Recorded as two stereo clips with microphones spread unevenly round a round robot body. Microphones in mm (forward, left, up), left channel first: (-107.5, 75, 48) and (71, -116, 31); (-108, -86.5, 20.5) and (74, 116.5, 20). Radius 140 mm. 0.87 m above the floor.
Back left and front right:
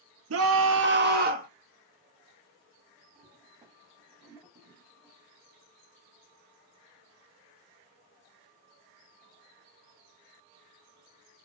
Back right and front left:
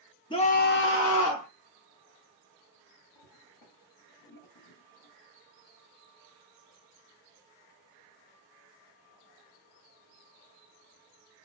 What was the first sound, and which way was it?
A scream, 60° right.